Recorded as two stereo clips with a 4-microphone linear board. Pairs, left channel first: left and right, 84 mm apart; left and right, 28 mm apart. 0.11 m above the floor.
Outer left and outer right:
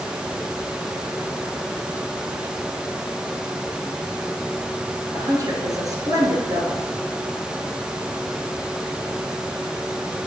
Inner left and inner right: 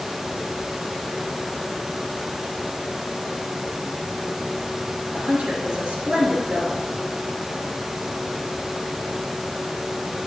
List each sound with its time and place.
5.1 s a woman speaking: 45° right (ahead or behind), 2.0 m